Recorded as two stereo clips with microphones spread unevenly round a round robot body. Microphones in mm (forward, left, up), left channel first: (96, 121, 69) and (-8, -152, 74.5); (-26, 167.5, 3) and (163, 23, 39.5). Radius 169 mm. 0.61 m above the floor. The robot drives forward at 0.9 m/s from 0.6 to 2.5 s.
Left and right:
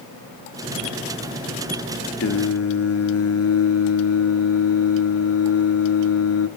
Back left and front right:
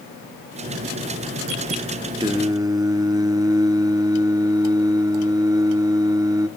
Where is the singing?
35° left, 1.7 m; by 6.5 s 40° left, 1.5 m.